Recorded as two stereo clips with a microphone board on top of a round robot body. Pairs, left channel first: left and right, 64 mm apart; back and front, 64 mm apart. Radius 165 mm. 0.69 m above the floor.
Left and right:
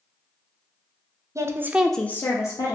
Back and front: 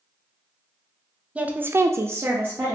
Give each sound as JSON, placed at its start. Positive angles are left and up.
{"t": 1.4, "sound": "a woman speaking", "azimuth_deg": -70, "distance_m": 0.7}